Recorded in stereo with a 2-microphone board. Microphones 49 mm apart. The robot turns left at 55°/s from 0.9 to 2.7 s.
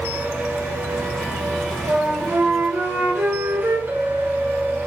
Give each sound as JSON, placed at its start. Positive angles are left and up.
{"t": 1.9, "sound": "a flute", "azimuth_deg": -85, "distance_m": 2.0}
{"t": 3.9, "sound": "a clink", "side_deg": -85, "distance_m": 1.9}